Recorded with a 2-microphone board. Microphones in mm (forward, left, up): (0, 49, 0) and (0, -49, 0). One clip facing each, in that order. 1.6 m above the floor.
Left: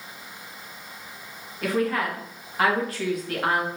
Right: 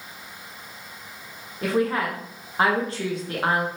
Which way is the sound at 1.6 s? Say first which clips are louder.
Right 1 dB; 25° right (ahead or behind).